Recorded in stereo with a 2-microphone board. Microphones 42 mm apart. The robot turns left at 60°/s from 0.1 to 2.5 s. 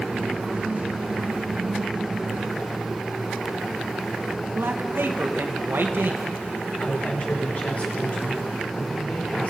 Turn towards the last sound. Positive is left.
turn(degrees=40)  # may be behind; listen again after turning